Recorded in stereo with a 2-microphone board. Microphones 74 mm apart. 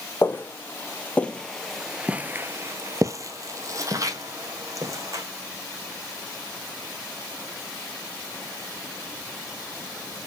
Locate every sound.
0.2 s footsteps: 30° left (ahead or behind), 1.4 m; by 5.2 s 45° right (ahead or behind), 2 m